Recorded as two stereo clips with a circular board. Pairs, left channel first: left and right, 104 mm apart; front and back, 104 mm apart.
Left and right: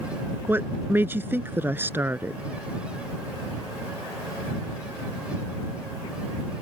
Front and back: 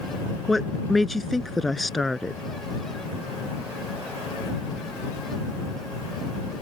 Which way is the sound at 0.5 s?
90° right.